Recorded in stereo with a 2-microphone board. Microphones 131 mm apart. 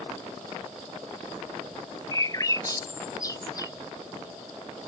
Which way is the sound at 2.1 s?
30° left (ahead or behind).